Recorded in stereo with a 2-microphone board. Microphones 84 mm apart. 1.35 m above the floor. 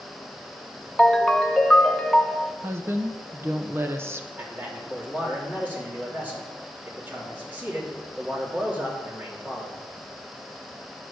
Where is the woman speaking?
30° right (ahead or behind), 0.9 m.